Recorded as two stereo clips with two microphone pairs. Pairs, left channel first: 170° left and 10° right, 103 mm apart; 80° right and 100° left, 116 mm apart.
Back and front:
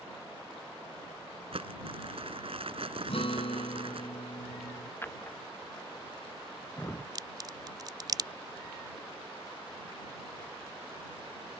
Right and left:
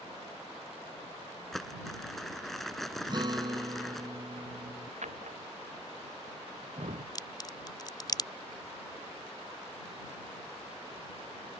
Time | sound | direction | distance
1.5 | crumpling | 5° left | ?
3.1 | a guitar | 150° left | ?
5.0 | a drawer | 100° left | ?
7.2 | a crack | 45° right | ?